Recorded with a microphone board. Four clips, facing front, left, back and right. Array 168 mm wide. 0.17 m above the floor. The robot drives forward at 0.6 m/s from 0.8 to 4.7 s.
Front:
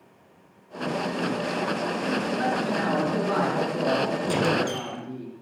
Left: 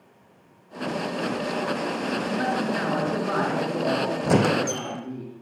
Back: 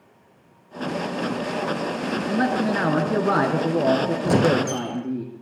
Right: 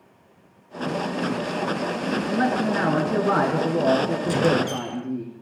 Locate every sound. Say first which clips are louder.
2.3 s a man speaking: right 4 dB, back 4 dB; 140° right, 2.5 m; by 5.2 s 160° right, 3.5 m
4.2 s a squeak: left 2 dB, back 5 dB; 125° left, 2.5 m; by 5.0 s 130° left, 3 m